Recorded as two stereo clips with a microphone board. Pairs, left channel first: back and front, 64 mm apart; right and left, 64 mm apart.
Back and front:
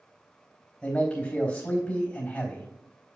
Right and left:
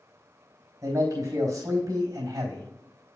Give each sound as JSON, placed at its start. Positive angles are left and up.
{"t": 0.8, "sound": "a man speaking", "azimuth_deg": 115, "distance_m": 3.5}